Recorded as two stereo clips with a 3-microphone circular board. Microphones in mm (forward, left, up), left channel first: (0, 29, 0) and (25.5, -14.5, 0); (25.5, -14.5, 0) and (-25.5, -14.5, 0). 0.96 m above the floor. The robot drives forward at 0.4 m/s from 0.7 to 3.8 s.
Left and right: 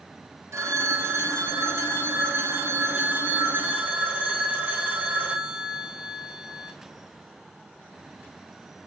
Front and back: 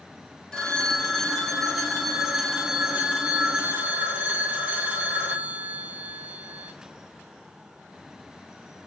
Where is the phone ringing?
75° right, 1.9 m; by 6.7 s 115° right, 2 m.